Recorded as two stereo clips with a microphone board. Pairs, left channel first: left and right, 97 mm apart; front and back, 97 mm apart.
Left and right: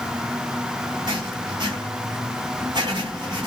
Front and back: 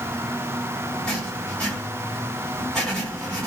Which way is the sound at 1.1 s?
80° right.